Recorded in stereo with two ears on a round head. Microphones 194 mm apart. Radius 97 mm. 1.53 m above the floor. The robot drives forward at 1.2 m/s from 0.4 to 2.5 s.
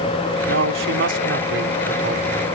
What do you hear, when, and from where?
0.5 s a man speaking: 65° right (ahead or behind); by 2.5 s 45° right (ahead or behind)